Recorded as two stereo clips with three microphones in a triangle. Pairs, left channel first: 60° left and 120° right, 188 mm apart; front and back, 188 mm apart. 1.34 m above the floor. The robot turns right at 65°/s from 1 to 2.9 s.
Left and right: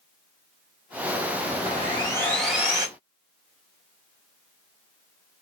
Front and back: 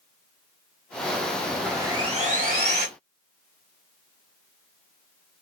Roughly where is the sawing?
Left.